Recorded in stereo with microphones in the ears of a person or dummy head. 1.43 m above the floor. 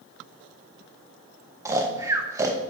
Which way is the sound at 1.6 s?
20° right (ahead or behind).